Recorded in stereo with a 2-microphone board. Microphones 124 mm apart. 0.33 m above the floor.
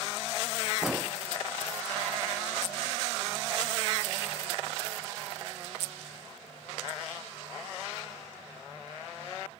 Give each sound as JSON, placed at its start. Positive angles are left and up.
{"t": 0.8, "sound": "an explosion", "side_deg": -5}